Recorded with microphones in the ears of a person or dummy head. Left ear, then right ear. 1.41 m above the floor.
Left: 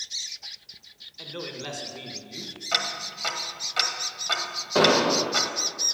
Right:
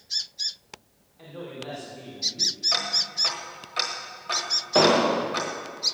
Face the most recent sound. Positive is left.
turn(degrees=-15)  # may be behind; listen again after turning